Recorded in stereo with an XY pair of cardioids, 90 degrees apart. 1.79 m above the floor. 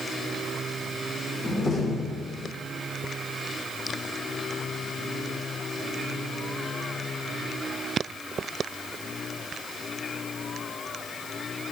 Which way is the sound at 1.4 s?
45° left.